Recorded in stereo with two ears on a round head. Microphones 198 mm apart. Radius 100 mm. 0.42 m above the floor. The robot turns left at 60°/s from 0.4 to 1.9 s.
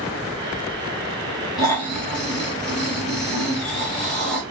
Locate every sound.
1.6 s snoring: 20° left (ahead or behind), 1.6 m; by 4.4 s centre (ahead or behind), 1.6 m